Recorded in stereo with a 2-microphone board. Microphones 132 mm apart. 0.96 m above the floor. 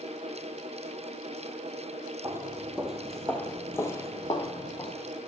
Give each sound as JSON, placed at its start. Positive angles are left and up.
{"t": 2.2, "sound": "footsteps", "side_deg": -20, "distance_m": 1.1}